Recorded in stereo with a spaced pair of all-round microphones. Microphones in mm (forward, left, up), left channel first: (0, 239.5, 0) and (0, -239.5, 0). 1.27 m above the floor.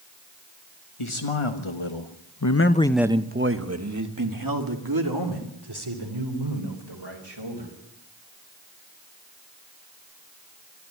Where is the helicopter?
I don't hear a helicopter.